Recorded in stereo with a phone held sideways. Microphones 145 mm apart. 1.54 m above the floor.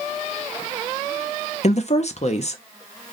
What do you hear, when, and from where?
1.6 s a woman speaking: 50° left (ahead or behind), 0.7 m